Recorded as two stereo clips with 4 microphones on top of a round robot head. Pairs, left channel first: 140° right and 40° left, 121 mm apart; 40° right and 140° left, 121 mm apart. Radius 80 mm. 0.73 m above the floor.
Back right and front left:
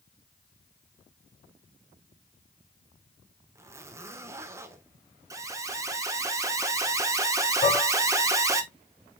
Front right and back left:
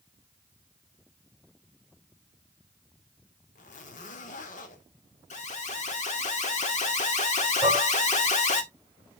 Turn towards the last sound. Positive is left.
turn(degrees=-135)